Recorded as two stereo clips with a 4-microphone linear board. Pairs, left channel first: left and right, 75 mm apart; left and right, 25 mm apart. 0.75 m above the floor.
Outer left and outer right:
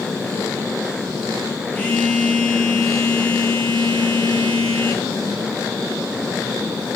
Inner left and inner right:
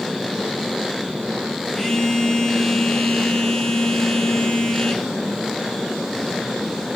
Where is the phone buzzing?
20° left (ahead or behind), 3.5 m.